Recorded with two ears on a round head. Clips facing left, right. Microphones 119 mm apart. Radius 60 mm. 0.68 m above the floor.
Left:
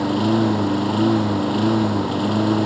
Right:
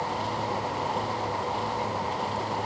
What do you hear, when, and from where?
0.0 s a lawn mower: 75° left (ahead or behind)